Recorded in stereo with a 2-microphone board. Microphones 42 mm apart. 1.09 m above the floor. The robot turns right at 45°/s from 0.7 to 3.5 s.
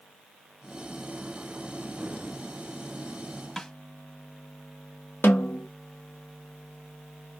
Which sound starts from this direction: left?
A snare drum, at 5.2 s.